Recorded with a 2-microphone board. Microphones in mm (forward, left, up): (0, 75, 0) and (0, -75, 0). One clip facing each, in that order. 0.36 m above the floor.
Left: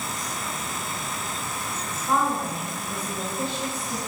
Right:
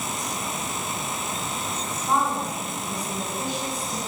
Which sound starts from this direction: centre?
A woman speaking, at 1.9 s.